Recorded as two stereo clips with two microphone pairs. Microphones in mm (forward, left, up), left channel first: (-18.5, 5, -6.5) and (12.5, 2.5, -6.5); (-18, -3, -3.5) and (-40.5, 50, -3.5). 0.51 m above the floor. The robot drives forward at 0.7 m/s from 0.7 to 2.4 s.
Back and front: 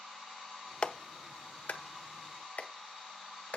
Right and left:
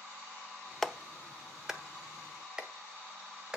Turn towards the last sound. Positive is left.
turn(degrees=-175)